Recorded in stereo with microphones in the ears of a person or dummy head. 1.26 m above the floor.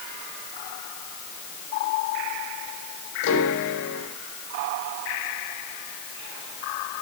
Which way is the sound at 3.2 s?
70° left (ahead or behind).